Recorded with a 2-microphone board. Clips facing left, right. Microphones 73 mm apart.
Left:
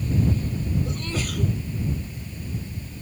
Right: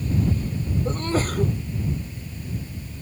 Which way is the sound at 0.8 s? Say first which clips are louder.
Right 5 dB; 40° right (ahead or behind).